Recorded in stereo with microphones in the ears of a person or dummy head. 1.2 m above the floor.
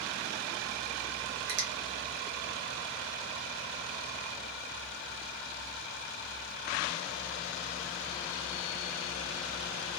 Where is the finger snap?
55° right (ahead or behind), 0.9 m.